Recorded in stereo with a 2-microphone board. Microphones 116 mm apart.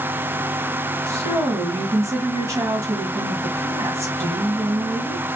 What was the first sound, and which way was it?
A woman speaking, 25° right (ahead or behind).